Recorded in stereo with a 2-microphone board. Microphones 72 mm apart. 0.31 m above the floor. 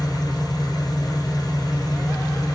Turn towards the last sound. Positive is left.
turn(degrees=75)  # may be behind; listen again after turning